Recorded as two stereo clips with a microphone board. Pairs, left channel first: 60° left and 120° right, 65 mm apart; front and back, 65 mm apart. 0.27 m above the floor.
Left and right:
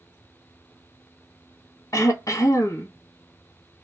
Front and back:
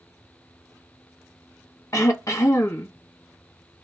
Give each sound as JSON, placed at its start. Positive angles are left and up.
{"t": 1.9, "sound": "throat clearing", "azimuth_deg": 30, "distance_m": 0.8}